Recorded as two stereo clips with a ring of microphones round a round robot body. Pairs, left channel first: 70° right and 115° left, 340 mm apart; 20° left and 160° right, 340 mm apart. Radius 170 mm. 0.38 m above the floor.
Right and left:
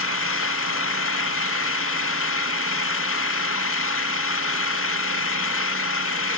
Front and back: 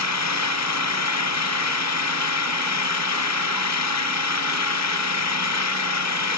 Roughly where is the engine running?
Ahead.